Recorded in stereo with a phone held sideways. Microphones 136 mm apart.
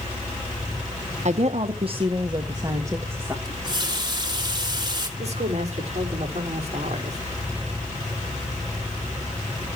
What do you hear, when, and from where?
1.2 s a woman speaking: 60° right (ahead or behind), 1.2 m; by 3.4 s 15° right (ahead or behind), 1.6 m
3.5 s a running tap: 30° right (ahead or behind), 2 m
5.2 s a woman speaking: 50° right (ahead or behind), 4 m